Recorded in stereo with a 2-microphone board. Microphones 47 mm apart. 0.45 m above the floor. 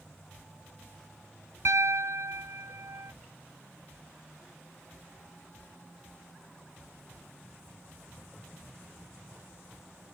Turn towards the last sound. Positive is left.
turn(degrees=-75)  # may be behind; listen again after turning